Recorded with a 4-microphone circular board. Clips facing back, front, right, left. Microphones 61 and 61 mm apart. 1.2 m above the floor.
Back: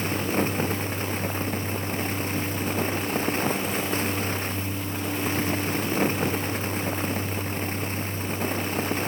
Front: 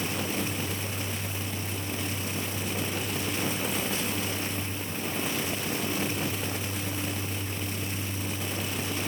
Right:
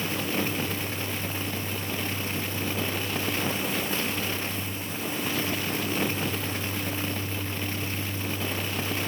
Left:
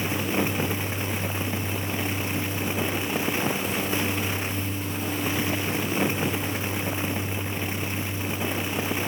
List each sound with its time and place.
Only background noise.